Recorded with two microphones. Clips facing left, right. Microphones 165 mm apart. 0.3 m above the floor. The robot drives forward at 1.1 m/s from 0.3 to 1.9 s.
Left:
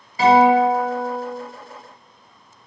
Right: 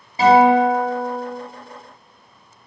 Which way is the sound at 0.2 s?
30° right (ahead or behind).